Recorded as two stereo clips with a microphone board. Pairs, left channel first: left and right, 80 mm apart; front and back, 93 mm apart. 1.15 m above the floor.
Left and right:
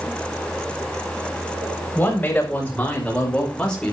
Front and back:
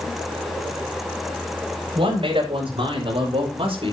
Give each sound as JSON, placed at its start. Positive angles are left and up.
{"t": 1.9, "sound": "a man speaking", "azimuth_deg": 160, "distance_m": 6.0}